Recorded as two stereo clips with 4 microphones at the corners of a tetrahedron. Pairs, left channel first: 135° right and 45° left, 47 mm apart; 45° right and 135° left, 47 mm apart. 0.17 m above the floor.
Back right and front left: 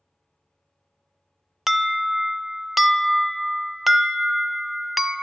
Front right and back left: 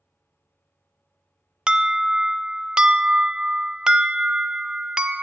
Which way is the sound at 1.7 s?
115° left.